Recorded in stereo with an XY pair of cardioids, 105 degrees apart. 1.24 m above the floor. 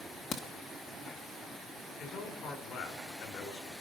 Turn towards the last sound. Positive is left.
turn(degrees=70)